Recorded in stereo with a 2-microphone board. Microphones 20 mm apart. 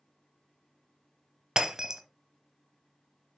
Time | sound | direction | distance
1.6 | breaking glass | 30° right (ahead or behind) | 0.9 m